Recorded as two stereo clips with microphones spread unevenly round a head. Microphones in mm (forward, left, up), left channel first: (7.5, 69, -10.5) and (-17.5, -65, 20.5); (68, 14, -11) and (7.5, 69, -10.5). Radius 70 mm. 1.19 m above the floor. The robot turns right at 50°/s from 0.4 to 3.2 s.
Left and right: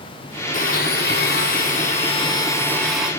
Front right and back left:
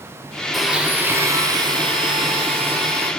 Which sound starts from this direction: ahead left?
A blender, at 0.5 s.